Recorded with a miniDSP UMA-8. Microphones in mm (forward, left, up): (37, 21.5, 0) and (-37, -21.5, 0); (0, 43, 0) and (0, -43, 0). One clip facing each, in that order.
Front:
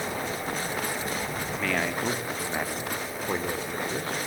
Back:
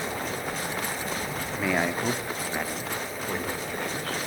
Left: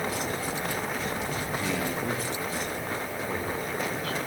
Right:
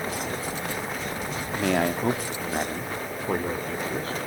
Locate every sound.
1.6 s a man speaking: 80° right, 1.5 m; by 4.2 s 35° right, 3 m